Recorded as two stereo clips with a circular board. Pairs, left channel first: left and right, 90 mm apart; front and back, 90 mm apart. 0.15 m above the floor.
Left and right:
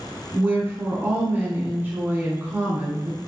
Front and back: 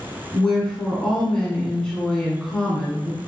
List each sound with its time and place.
0.3 s a woman speaking: 70° right, 1.1 m